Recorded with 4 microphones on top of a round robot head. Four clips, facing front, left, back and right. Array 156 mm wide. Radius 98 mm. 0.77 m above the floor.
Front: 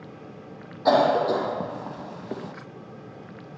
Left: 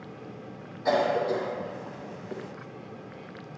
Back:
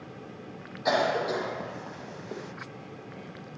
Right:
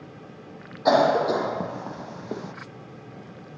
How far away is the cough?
About 0.7 m.